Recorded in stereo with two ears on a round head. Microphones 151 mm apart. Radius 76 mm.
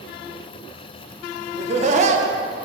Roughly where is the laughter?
Right.